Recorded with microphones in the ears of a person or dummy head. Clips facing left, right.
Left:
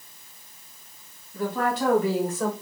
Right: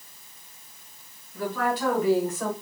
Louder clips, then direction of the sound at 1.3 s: Left 1 dB; 25° left (ahead or behind).